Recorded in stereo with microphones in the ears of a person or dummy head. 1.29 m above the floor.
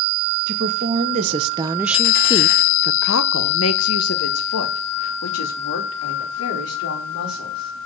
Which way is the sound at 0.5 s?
50° right (ahead or behind).